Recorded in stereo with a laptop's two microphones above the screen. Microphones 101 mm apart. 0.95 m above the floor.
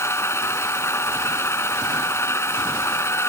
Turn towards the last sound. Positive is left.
turn(degrees=25)  # may be behind; listen again after turning